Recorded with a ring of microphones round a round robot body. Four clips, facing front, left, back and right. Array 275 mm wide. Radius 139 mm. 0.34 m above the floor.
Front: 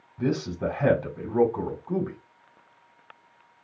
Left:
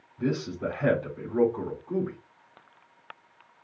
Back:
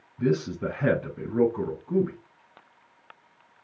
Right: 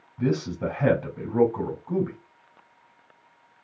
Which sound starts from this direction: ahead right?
A man speaking, at 0.2 s.